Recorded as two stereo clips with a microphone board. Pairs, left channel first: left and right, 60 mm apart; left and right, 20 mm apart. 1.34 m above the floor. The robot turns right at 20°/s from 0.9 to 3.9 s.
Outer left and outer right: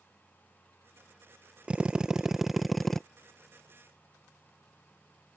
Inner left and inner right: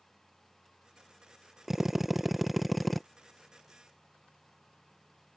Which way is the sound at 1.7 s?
20° right (ahead or behind).